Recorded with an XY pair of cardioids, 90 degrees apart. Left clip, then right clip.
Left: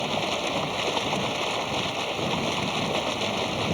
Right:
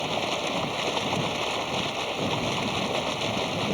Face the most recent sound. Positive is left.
turn(degrees=5)